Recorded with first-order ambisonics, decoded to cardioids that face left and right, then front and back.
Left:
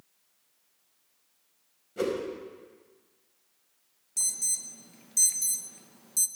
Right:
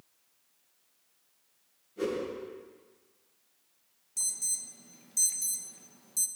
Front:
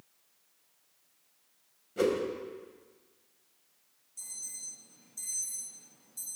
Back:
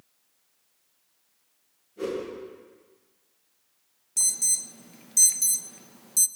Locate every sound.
2.0 s a whoosh: 40° left, 5 m
4.2 s an alarm: 165° left, 0.7 m